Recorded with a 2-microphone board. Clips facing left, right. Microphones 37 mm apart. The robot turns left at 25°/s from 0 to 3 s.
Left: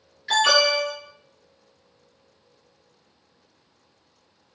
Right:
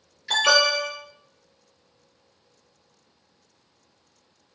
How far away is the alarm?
About 1.8 m.